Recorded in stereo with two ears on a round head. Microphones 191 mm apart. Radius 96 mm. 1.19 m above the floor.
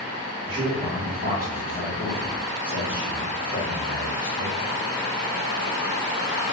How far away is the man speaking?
About 0.9 m.